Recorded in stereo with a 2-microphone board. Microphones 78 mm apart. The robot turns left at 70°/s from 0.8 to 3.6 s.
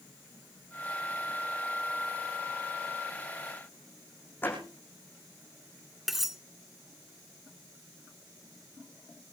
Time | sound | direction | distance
4.4 | a door slam | 25° left (ahead or behind) | 6.5 m
6.1 | cutlery clinking | 5° right (ahead or behind) | 0.9 m